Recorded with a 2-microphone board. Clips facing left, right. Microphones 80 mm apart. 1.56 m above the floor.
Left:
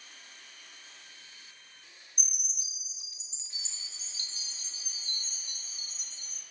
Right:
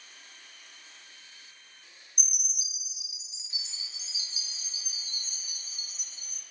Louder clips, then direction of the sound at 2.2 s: Right 3 dB; 10° right (ahead or behind).